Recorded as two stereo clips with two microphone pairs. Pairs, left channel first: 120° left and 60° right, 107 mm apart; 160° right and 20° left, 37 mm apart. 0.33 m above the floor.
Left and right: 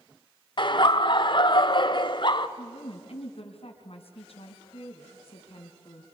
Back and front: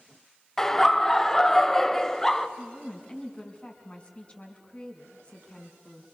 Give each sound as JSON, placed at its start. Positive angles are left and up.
{"t": 0.6, "sound": "laughter", "azimuth_deg": 120, "distance_m": 1.2}
{"t": 2.6, "sound": "a woman speaking", "azimuth_deg": 135, "distance_m": 4.0}